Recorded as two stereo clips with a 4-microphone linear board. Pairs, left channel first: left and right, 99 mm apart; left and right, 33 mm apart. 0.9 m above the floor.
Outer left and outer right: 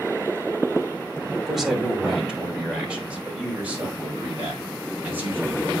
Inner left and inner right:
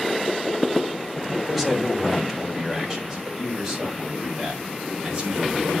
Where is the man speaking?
5° right (ahead or behind), 3 m; by 5.8 s 20° right (ahead or behind), 6 m.